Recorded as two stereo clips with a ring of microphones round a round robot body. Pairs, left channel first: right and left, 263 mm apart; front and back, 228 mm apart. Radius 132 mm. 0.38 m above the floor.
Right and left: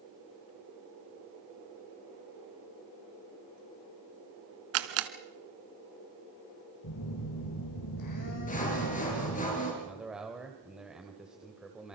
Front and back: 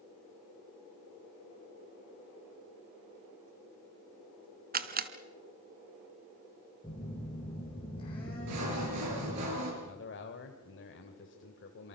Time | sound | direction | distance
4.7 | a camera shutter | 130° left | 1.3 m
6.8 | a phone buzzing | 75° right | 6 m
8.5 | sawing | 150° right | 6 m
9.8 | a man speaking | 5° left | 1.5 m